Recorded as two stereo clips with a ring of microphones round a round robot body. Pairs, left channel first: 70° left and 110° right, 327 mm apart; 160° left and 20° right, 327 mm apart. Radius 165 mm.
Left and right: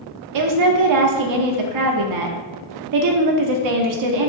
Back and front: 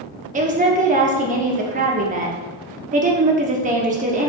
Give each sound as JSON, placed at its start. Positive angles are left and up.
{"t": 0.3, "sound": "a woman speaking", "azimuth_deg": -90, "distance_m": 1.1}